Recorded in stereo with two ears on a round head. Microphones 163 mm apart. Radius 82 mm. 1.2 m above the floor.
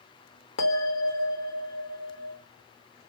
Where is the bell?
80° left, 1.1 m.